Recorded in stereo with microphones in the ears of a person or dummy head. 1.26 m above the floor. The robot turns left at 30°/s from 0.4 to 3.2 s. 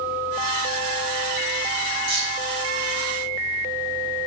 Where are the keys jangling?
75° right (ahead or behind), 4 m; by 2.4 s 65° right (ahead or behind), 4 m.